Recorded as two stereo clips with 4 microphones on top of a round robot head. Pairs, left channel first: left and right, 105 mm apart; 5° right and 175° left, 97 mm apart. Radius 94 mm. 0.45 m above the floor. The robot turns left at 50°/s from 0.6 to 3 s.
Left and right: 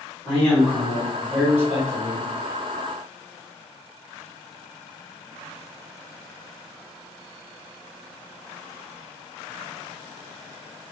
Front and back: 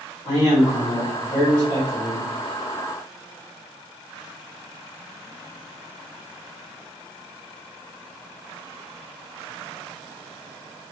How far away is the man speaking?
About 1.7 m.